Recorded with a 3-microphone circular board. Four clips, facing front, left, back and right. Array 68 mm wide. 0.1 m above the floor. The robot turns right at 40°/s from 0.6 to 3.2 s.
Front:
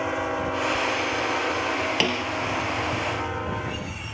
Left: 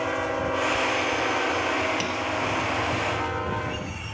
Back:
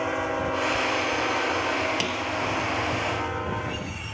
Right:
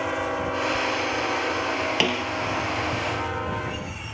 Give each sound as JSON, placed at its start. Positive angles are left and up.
{"t": 2.0, "sound": "a snare drum", "azimuth_deg": -60}